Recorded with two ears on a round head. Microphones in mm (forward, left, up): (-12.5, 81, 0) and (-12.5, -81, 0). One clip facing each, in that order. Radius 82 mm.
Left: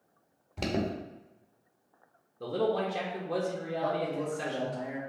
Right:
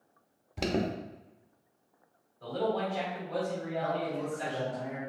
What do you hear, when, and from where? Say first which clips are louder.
0.6 s an alarm: right 1 dB; 5° right (ahead or behind), 0.6 m
2.4 s a man speaking: left 2 dB; 70° left (ahead or behind), 0.9 m
3.8 s a man speaking: left 2 dB; 15° left (ahead or behind), 1.1 m